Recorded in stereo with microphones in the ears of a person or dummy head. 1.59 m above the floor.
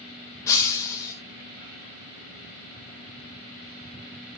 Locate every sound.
0.5 s breaking glass: 15° left (ahead or behind), 1.0 m